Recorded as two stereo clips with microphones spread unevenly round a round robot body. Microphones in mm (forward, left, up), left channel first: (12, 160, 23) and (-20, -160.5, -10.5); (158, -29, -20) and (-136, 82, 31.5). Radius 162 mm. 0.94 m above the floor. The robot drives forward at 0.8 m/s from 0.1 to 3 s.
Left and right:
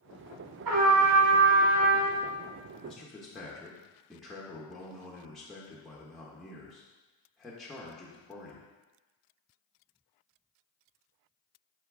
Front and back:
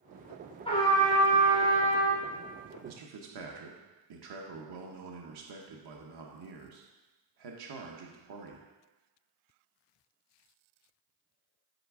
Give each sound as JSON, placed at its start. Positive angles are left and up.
{"t": 0.7, "sound": "a trumpet", "azimuth_deg": -100, "distance_m": 1.2}
{"t": 2.9, "sound": "a man speaking", "azimuth_deg": 175, "distance_m": 0.5}